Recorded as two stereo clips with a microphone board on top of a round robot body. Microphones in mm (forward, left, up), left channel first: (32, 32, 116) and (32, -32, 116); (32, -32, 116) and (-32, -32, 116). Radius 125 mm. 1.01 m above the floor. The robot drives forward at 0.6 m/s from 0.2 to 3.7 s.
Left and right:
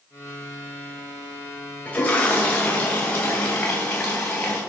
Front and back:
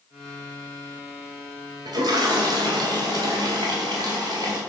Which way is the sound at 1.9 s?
160° left.